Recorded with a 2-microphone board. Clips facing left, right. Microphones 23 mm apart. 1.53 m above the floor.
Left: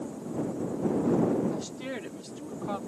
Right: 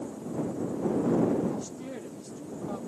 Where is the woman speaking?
80° left; by 2.8 s 85° left.